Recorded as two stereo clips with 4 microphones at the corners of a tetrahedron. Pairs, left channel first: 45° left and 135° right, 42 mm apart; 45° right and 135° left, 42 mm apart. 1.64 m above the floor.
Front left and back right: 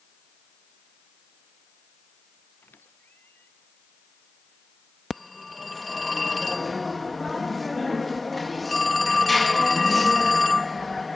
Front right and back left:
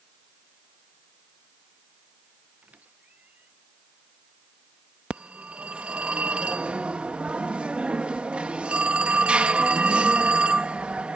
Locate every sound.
2.6 s a squeak: 80° left
5.1 s a phone ringing: 130° left